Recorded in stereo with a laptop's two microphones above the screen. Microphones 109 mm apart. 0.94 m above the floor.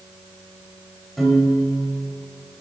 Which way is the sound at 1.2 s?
Centre (ahead or behind).